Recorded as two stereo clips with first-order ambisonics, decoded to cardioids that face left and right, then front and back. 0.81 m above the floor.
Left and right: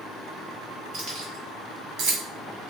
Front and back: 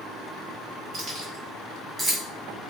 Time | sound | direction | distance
0.9 | keys jangling | 130° right | 1.1 m